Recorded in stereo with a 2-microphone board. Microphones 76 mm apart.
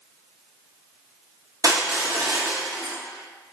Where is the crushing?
50° right (ahead or behind), 0.7 m.